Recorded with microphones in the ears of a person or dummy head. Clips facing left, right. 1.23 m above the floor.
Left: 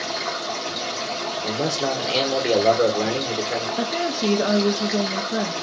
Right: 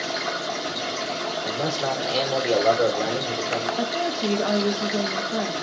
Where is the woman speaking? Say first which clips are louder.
Left 1 dB; 25° left (ahead or behind), 0.6 m.